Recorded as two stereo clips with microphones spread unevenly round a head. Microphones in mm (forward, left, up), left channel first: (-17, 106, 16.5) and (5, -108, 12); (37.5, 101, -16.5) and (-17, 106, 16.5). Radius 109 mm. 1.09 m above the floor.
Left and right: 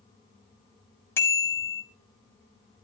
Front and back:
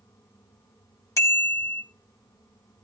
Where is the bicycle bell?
15° left, 3.5 m.